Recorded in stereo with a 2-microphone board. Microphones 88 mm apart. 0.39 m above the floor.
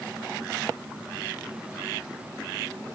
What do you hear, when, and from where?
Only background noise.